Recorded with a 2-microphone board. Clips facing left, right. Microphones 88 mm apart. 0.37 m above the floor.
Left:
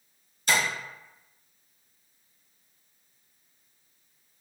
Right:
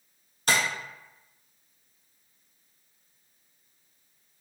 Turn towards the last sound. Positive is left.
turn(degrees=-60)  # may be behind; listen again after turning